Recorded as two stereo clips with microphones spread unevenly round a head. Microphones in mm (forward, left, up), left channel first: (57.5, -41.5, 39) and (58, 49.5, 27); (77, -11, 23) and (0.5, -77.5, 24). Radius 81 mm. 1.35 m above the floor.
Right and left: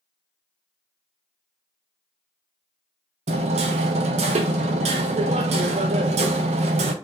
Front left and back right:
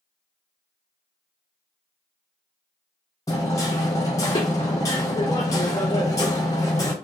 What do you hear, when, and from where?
3.3 s hammering: 110° left, 0.5 m